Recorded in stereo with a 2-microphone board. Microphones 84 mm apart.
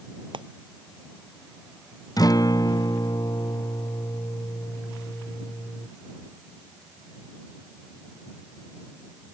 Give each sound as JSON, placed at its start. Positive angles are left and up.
{"t": 0.3, "sound": "frying", "side_deg": -75}
{"t": 2.2, "sound": "a guitar", "side_deg": 50}